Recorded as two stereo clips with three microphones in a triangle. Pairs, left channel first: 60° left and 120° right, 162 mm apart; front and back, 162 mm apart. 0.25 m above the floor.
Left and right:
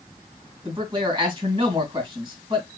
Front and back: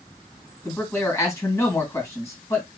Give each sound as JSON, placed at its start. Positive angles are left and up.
{"t": 0.7, "sound": "a man speaking", "azimuth_deg": -65, "distance_m": 2.5}